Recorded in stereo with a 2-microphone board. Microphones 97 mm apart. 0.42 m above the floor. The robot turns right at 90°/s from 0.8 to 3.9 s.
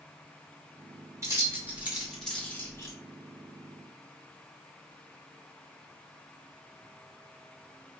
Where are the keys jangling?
30° right (ahead or behind), 0.8 m; by 3.0 s 30° left (ahead or behind), 0.8 m.